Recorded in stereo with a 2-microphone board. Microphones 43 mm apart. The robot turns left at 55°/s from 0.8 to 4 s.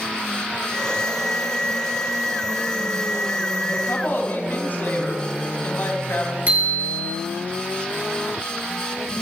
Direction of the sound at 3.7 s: 65° left (ahead or behind).